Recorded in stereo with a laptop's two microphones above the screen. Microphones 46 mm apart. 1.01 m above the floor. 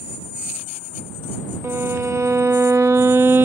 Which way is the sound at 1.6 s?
65° right (ahead or behind).